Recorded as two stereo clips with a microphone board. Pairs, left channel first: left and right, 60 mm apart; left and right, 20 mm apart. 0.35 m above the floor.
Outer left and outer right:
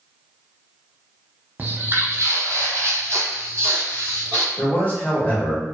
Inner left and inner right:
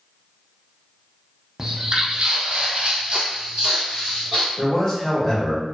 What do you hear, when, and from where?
1.6 s footsteps: 30° right (ahead or behind), 0.7 m
4.6 s a man speaking: 25° left (ahead or behind), 0.8 m